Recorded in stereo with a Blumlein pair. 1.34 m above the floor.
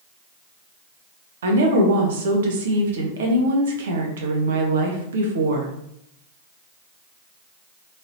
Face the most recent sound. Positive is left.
turn(degrees=-60)